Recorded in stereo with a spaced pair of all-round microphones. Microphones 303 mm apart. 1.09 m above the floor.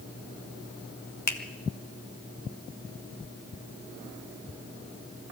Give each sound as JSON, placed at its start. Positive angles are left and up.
{"t": 1.3, "sound": "a finger snap", "side_deg": 70, "distance_m": 1.4}